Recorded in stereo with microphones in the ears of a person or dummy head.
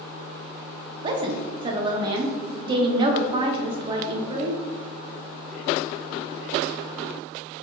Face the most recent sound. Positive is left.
turn(degrees=-30)  # may be behind; listen again after turning